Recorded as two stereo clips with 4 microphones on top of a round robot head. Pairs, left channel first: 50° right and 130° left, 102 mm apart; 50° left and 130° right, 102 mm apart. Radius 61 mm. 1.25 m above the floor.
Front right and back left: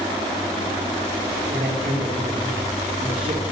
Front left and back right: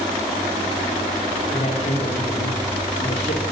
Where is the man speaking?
85° left, 3 m.